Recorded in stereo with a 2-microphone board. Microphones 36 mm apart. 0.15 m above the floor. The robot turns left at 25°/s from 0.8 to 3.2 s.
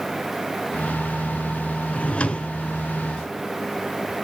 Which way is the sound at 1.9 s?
40° left (ahead or behind).